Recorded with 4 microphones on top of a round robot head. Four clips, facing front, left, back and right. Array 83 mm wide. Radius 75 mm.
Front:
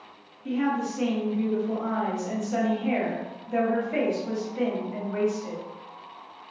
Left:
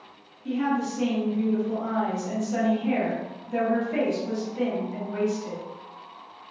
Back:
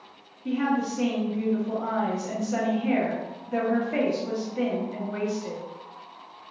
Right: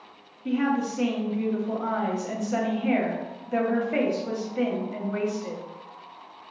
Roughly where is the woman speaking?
Right.